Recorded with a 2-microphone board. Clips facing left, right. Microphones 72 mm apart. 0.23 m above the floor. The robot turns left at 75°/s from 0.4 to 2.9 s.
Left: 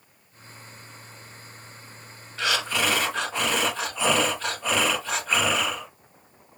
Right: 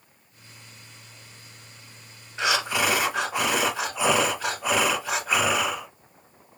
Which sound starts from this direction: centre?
Breathing, at 2.4 s.